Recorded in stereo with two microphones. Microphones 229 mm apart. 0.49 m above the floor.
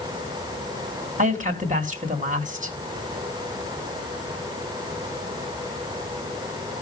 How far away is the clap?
No clap in this recording.